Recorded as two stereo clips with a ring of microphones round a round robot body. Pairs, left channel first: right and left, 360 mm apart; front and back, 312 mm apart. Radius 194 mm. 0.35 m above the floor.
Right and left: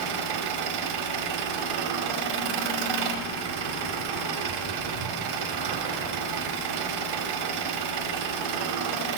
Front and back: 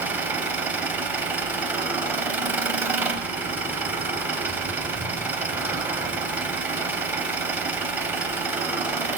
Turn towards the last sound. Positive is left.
turn(degrees=95)